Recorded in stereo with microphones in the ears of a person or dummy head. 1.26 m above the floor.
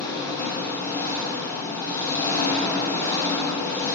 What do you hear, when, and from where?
0.0 s an engine running: 20° left (ahead or behind), 1.1 m